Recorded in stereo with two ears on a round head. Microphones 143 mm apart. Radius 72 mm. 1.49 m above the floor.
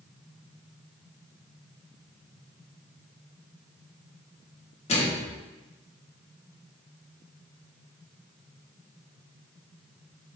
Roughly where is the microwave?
Left.